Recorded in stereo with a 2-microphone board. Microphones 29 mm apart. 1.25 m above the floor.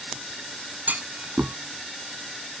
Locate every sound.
0.9 s a clunk: 70° right (ahead or behind)